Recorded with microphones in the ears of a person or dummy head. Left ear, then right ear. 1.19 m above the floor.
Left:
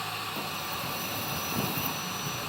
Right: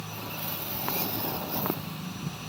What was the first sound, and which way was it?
Only background noise.